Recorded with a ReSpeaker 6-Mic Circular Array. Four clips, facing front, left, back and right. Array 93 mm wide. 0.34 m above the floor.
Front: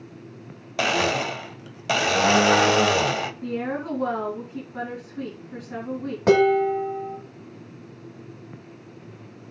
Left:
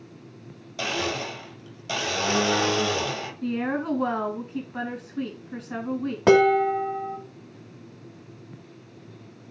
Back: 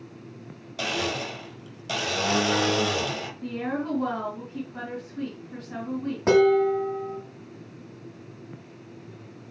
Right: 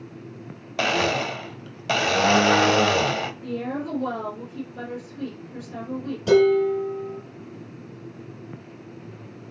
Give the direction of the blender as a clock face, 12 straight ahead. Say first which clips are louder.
Right 6 dB, front 6 dB; 2 o'clock.